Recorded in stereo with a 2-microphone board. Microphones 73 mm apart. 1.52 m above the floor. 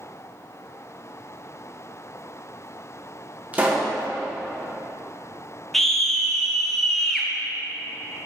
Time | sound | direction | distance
3.5 | a pop | 20° right (ahead or behind) | 1.7 m
5.7 | a scream | 5° left (ahead or behind) | 1.4 m